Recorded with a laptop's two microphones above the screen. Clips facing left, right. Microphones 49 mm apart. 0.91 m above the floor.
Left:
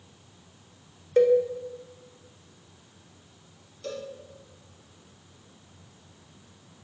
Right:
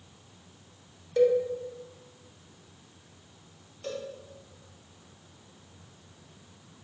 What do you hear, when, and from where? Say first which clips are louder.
1.2 s a cowbell: left 3 dB; 30° left (ahead or behind), 0.6 m
3.8 s a cowbell: even; 30° right (ahead or behind), 1.0 m